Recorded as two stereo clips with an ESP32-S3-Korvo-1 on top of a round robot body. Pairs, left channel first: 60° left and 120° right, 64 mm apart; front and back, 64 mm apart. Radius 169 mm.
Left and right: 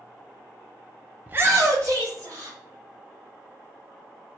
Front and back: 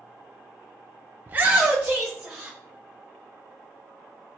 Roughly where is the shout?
Behind.